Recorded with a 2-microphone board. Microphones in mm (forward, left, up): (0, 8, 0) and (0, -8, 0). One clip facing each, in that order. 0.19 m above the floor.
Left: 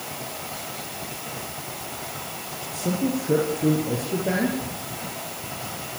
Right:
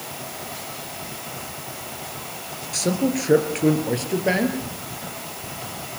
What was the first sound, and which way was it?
A man speaking, 55° right (ahead or behind).